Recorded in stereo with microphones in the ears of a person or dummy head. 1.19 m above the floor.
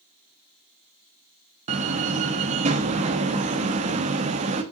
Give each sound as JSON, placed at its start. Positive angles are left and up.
{"t": 1.7, "sound": "a door slam", "side_deg": -40, "distance_m": 1.4}